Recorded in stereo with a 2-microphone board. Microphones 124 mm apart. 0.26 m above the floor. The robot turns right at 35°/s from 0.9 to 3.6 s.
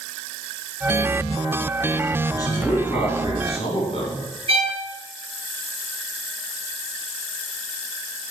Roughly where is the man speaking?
Ahead left.